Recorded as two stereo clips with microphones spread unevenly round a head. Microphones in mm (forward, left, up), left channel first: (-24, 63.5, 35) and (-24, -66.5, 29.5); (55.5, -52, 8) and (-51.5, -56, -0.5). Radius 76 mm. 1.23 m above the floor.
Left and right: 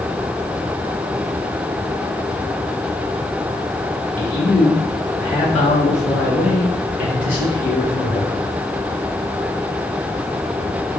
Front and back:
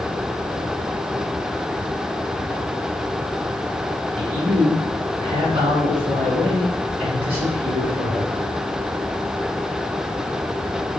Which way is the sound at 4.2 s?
145° left.